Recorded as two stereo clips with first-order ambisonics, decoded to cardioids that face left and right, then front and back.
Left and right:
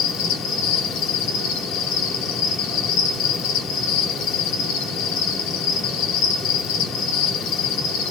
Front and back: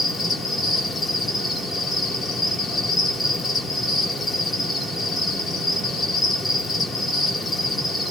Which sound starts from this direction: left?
An insect, at 0.0 s.